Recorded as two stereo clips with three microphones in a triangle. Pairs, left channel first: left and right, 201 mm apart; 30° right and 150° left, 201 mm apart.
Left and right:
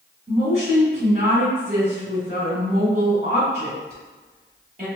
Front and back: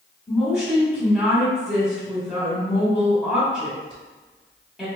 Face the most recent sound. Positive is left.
turn(degrees=-125)